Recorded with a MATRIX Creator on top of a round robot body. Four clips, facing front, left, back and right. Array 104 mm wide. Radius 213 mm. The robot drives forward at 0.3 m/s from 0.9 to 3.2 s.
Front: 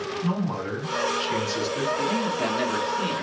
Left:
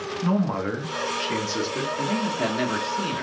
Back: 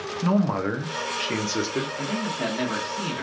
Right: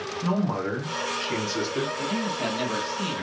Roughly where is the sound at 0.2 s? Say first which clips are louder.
Left 2 dB, back 7 dB; behind.